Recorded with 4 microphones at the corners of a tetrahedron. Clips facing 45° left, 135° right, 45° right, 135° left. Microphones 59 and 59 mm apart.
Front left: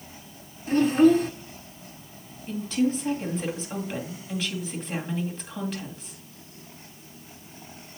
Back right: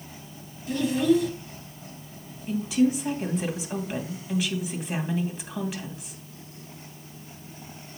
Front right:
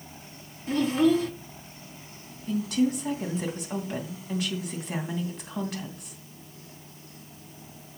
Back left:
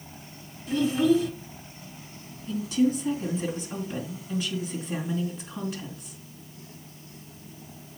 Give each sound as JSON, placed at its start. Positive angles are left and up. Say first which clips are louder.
{"t": 0.7, "sound": "a child speaking", "louder": "front left 4 dB, even", "azimuth_deg": -5, "distance_m": 1.4}
{"t": 2.5, "sound": "a woman speaking", "louder": "back right 2 dB, back left 1 dB", "azimuth_deg": -55, "distance_m": 2.5}